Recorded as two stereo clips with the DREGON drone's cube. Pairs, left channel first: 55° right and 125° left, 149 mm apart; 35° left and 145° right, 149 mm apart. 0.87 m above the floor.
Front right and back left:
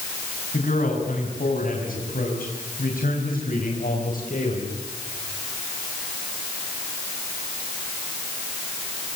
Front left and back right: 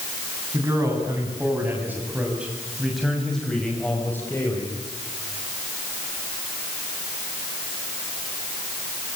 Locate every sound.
0.5 s a man speaking: 80° right, 8 m; by 4.8 s 35° right, 5 m